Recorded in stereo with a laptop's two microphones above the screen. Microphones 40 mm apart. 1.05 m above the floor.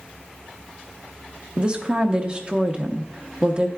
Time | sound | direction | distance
1.6 | a woman speaking | 25° right (ahead or behind) | 0.6 m